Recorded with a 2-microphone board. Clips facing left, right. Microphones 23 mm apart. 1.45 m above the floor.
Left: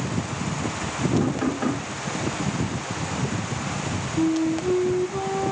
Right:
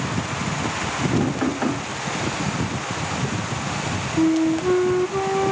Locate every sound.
1.2 s knocking: 35° right (ahead or behind), 2.5 m
4.2 s a flute: 45° right (ahead or behind), 0.6 m